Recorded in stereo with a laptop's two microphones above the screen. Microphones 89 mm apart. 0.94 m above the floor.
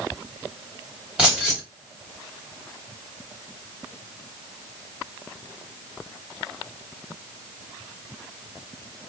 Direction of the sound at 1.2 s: 10° right (ahead or behind).